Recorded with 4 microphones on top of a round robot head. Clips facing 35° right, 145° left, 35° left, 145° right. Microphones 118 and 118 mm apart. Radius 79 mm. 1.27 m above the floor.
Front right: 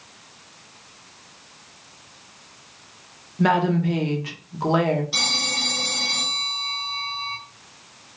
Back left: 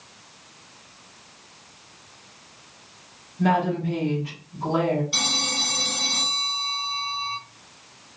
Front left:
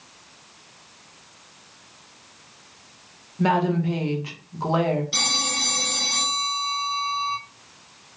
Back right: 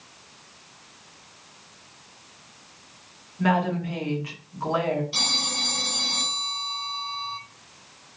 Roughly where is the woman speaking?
Ahead right.